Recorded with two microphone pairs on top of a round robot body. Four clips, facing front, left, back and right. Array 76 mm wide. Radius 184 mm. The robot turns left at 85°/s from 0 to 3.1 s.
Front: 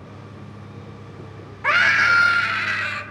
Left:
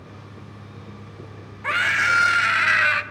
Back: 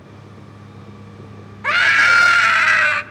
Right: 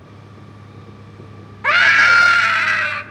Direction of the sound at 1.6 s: 80° right.